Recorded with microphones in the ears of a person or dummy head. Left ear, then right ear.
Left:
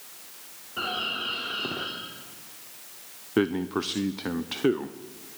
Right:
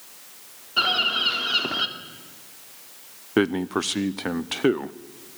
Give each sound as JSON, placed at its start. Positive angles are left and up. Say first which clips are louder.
{"t": 0.8, "sound": "a bird", "louder": "right 8 dB", "side_deg": -65, "distance_m": 2.0}
{"t": 3.4, "sound": "a man speaking", "louder": "right 3 dB", "side_deg": -20, "distance_m": 0.5}